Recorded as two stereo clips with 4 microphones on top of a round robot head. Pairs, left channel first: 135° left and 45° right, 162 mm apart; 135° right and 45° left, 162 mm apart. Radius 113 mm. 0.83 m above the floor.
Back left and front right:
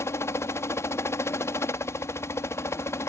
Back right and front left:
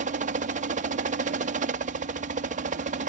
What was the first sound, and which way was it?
A helicopter, 65° left.